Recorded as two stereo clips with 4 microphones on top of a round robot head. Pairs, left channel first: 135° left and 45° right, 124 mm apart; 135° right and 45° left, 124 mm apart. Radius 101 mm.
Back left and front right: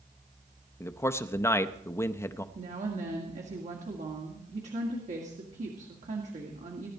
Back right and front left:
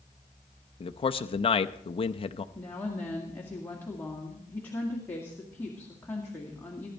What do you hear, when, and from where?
0.8 s a man speaking: 165° right, 0.6 m
2.5 s a woman speaking: 60° right, 2 m